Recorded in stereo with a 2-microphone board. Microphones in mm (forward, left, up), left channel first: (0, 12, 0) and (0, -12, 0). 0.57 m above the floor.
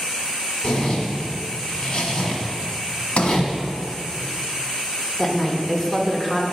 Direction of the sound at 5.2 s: 15° left (ahead or behind).